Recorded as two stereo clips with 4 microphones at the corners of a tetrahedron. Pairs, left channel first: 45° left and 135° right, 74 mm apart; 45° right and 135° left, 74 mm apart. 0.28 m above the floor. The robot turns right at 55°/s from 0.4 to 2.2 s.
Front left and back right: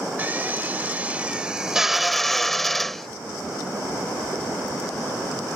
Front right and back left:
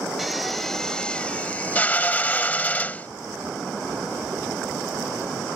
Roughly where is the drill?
Behind right.